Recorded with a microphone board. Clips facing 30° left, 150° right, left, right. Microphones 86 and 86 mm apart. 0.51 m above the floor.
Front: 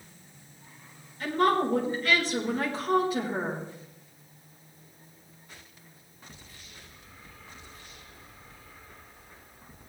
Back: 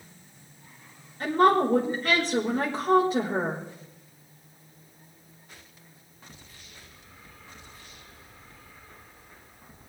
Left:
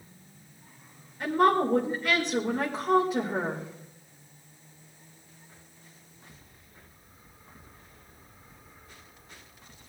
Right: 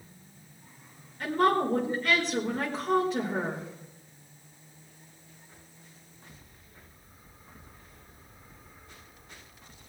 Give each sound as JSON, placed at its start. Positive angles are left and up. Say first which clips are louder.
{"t": 1.2, "sound": "a woman speaking", "louder": "back 4 dB, left 2 dB", "azimuth_deg": 165, "distance_m": 1.7}